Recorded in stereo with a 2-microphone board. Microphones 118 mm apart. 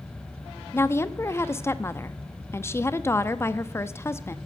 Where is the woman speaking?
20° left (ahead or behind), 0.7 m.